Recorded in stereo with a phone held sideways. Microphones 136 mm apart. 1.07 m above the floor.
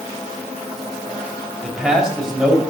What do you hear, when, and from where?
1.6 s a man speaking: 5° right (ahead or behind), 4.5 m